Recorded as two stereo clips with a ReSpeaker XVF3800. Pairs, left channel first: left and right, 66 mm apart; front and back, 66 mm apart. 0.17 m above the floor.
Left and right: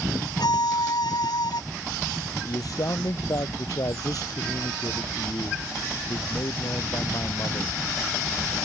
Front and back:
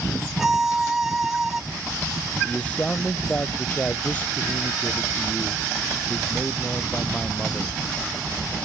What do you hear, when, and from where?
0.4 s a violin: 95° left
2.5 s a man speaking: 70° left